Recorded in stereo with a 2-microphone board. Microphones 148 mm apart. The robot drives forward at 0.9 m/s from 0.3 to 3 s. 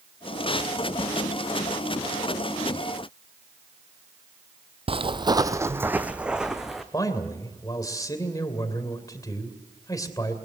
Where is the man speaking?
25° left (ahead or behind), 2.5 m.